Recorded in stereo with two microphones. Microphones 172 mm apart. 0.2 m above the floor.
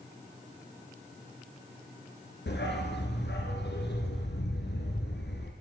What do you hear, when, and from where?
2.5 s a dog barking: 80° left, 3.5 m